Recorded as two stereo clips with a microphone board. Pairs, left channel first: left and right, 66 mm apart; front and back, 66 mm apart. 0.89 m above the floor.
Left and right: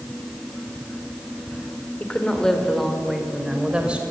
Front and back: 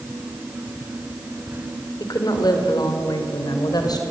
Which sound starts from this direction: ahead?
A woman speaking, at 2.0 s.